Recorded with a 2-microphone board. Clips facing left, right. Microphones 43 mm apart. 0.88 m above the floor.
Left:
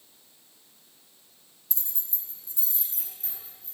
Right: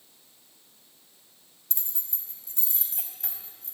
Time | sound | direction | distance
1.7 | keys jangling | 50° right (ahead or behind) | 4 m